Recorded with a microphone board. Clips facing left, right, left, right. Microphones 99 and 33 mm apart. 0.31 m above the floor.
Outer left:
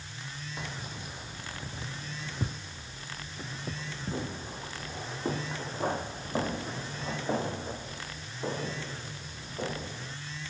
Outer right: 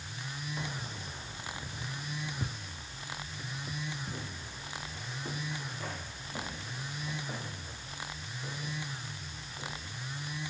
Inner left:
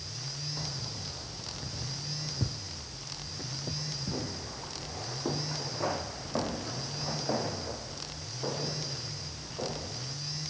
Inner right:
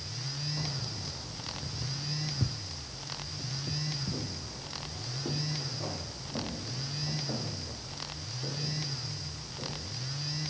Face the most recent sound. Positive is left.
turn(degrees=55)  # may be behind; listen again after turning